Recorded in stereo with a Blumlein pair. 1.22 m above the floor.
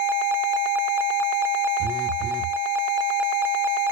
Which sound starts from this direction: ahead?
A phone buzzing, at 1.8 s.